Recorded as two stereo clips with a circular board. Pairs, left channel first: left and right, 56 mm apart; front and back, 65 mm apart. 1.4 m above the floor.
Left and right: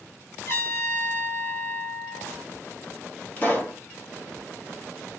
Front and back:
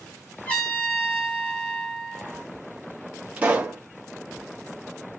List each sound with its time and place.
0.5 s a trumpet: 65° left, 1.9 m
3.4 s a pop: 125° left, 1.0 m